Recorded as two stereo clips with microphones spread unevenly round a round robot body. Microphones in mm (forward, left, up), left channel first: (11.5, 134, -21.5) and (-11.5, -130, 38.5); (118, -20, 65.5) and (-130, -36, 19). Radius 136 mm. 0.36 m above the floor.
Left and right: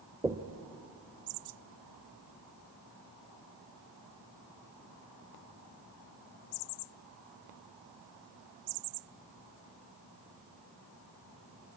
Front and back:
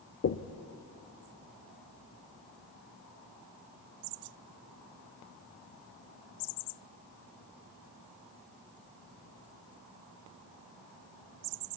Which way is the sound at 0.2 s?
Straight ahead.